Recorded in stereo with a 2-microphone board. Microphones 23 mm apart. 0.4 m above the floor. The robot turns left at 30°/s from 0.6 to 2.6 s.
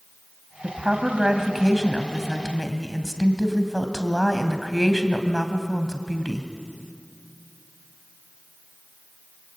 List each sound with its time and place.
0.6 s a woman speaking: 135° right, 2.5 m; by 6.5 s 165° left, 2.5 m